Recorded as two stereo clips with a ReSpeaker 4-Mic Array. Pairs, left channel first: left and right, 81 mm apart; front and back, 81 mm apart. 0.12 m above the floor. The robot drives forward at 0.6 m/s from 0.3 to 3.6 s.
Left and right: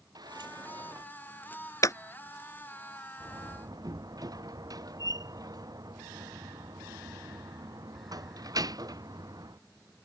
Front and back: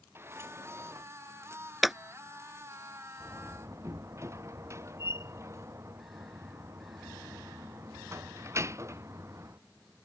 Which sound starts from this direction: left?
Scissors, at 1.8 s.